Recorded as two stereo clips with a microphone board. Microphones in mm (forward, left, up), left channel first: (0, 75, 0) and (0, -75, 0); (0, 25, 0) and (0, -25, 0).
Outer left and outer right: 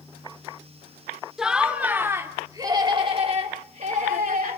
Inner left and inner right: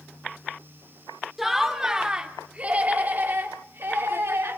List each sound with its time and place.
1.4 s laughter: 5° right (ahead or behind), 2.5 m; by 4.6 s 65° right (ahead or behind), 2.5 m